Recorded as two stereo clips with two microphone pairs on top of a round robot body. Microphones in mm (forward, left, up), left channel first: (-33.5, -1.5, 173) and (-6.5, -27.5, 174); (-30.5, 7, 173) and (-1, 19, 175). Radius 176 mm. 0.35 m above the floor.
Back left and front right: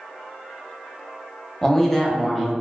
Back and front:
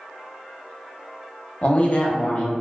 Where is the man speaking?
150° right, 1.0 m.